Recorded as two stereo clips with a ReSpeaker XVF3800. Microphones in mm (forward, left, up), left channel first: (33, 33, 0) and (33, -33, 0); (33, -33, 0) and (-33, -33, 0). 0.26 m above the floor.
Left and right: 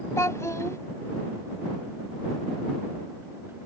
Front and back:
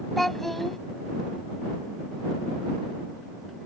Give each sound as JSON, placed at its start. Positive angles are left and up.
{"t": 0.2, "sound": "a child speaking", "azimuth_deg": 90}